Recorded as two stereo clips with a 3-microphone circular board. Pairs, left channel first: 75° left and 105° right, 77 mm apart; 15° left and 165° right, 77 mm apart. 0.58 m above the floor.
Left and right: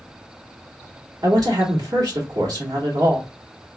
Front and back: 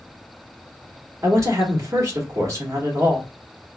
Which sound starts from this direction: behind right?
A woman speaking, at 1.2 s.